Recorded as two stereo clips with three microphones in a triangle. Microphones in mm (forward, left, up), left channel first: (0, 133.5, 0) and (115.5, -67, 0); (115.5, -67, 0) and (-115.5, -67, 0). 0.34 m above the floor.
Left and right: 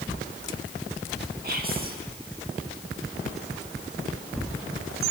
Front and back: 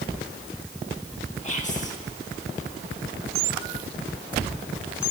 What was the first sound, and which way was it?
Whispering, 40° right.